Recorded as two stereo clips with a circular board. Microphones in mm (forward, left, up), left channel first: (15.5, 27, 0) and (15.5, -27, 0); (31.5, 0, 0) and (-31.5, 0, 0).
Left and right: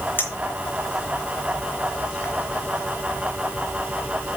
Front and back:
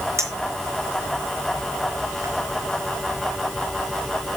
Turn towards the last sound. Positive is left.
turn(degrees=140)